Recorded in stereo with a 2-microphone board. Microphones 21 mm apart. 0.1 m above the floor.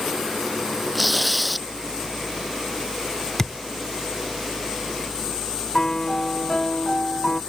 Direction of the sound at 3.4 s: 25° left (ahead or behind).